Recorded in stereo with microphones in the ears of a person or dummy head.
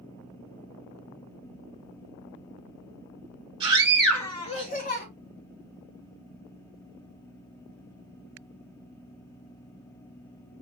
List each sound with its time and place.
3.6 s a scream: 20° right (ahead or behind), 0.9 m; by 5.0 s 55° left (ahead or behind), 1.2 m